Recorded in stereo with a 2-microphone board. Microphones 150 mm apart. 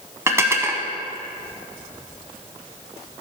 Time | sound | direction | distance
0.3 | dishes clattering | 20° right (ahead or behind) | 1.1 m